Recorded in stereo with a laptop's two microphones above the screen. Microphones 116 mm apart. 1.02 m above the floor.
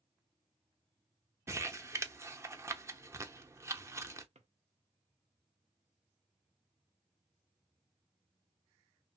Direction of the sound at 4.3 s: 70° right (ahead or behind).